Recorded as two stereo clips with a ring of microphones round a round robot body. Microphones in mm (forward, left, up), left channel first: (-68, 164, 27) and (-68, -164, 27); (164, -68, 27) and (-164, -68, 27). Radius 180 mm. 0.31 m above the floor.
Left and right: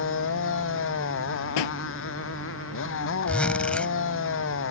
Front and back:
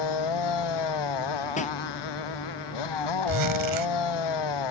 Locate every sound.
0.0 s a motorcycle: 30° left
1.6 s a pop: 75° left
3.3 s a zipper: 175° left